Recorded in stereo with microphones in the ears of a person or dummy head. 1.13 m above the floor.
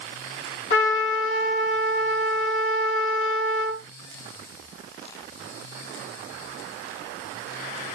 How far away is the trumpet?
About 2 m.